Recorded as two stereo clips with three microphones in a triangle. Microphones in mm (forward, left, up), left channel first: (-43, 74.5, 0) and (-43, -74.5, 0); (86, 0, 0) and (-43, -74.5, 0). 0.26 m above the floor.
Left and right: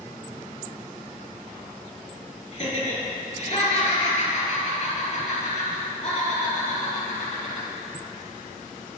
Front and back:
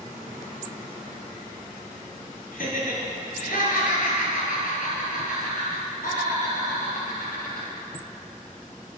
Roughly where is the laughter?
Ahead left.